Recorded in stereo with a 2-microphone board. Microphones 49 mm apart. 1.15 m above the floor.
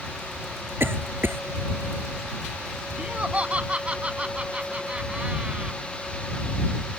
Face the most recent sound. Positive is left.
turn(degrees=-25)  # may be behind; listen again after turning